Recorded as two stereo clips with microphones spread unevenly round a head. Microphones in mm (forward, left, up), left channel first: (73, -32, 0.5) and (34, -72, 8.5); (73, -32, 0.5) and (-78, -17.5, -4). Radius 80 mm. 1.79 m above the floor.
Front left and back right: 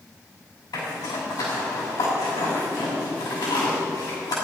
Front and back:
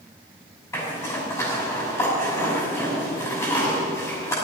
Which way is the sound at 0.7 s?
65° left.